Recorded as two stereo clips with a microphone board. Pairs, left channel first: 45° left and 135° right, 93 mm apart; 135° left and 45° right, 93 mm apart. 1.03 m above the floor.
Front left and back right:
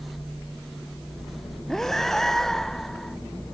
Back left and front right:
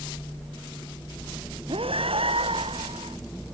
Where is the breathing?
40° right.